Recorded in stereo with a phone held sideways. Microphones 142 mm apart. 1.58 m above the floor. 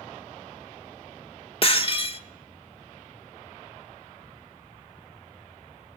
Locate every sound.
1.6 s breaking glass: 40° left (ahead or behind), 1.6 m